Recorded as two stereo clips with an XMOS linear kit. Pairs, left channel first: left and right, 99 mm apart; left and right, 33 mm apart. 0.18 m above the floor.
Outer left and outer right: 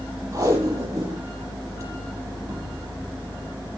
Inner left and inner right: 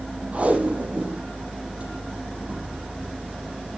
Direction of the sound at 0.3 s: 35° right (ahead or behind).